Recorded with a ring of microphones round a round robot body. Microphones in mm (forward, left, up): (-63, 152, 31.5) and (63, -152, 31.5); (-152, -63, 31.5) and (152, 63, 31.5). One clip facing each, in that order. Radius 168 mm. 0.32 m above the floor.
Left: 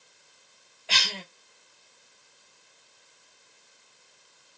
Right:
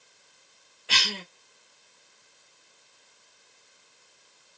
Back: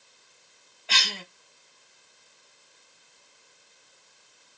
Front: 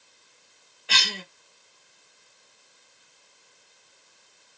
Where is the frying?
I don't hear frying.